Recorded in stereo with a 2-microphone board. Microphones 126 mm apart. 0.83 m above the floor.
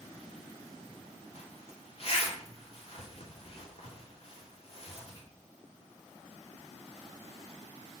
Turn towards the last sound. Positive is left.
turn(degrees=50)  # may be behind; listen again after turning